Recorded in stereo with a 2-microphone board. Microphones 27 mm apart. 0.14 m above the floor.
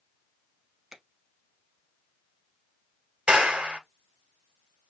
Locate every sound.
0.9 s a finger snap: 20° right (ahead or behind), 0.9 m
3.3 s a clap: 45° right (ahead or behind), 1.5 m